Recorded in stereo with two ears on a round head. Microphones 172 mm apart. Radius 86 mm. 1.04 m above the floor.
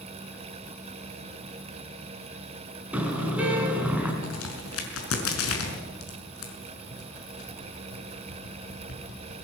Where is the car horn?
5° right (ahead or behind), 5.5 m.